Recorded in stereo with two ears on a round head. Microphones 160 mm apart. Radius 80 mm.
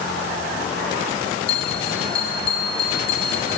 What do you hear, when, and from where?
1.5 s a bell: 30° left (ahead or behind), 0.8 m